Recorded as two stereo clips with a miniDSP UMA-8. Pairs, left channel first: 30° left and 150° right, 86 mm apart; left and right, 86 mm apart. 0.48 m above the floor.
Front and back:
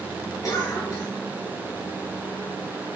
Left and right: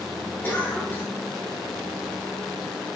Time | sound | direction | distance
0.4 | a cough | 35° left | 1.7 m